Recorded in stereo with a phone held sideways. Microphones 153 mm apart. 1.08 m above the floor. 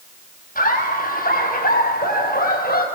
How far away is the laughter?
About 6.5 m.